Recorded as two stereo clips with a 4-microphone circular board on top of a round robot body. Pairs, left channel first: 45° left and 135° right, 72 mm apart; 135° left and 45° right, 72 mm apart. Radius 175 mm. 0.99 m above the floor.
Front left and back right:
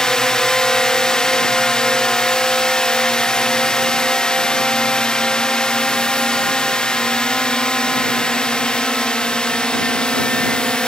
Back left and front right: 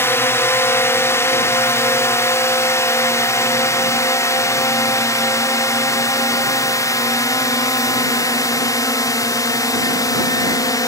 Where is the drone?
120° left.